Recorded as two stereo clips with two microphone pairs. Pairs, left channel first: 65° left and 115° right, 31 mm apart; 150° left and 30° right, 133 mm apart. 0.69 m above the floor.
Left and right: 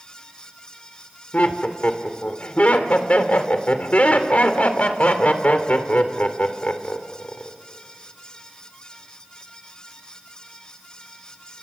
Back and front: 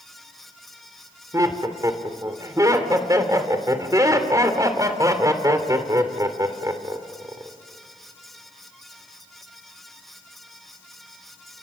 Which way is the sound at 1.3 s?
30° left.